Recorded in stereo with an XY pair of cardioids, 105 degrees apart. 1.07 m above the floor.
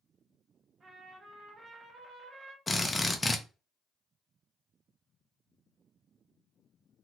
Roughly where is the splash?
I don't hear a splash.